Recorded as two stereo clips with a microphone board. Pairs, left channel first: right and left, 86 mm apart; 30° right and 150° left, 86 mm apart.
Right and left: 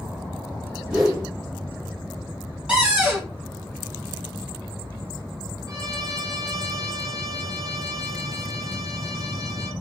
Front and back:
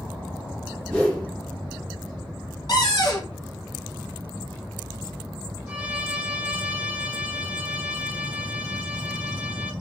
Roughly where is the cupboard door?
Ahead.